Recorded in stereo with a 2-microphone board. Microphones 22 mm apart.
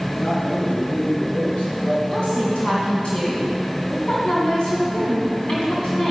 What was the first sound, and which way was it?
A man speaking, 75° left (ahead or behind).